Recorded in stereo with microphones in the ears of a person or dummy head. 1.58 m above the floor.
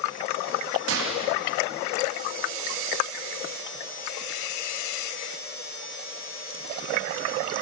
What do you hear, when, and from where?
0.9 s a gunshot: 80° right, 3.5 m